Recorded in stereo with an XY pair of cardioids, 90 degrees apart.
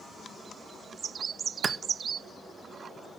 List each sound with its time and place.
1.6 s a clap: 45° right, 0.7 m